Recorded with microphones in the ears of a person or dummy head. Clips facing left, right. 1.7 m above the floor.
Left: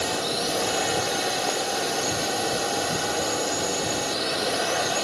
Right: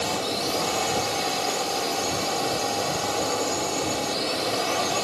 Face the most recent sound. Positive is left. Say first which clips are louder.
# even
turn(degrees=15)  # may be behind; listen again after turning